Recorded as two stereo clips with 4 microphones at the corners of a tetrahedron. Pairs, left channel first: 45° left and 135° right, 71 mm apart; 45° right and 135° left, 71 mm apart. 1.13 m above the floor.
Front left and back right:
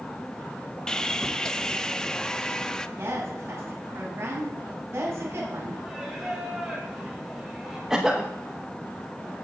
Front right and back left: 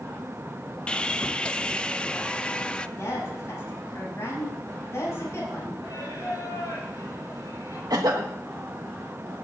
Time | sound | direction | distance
0.9 | sawing | 5° right | 0.5 m
3.0 | a woman speaking | 85° right | 6.5 m
5.8 | singing | 50° right | 5.5 m
7.9 | a cough | 145° left | 0.9 m